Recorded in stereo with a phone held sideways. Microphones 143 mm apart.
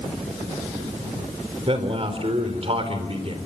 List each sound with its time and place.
1.7 s a man speaking: 40° right (ahead or behind), 3.5 m